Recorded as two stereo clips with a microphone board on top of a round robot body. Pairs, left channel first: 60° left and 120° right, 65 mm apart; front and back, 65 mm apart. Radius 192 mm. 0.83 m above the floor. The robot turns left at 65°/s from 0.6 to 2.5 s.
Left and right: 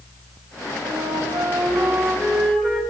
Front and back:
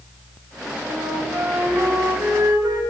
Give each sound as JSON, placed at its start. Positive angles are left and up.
{"t": 0.8, "sound": "a flute", "azimuth_deg": -105, "distance_m": 6.0}